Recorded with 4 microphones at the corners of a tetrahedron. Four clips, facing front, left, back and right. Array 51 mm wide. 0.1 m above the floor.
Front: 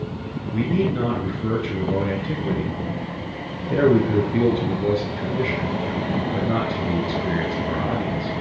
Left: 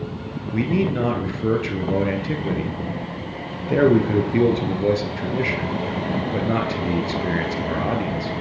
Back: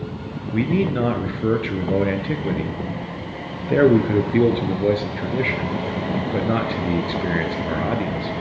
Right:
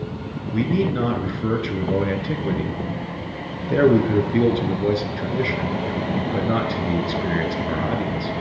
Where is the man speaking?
165° left, 1.4 m.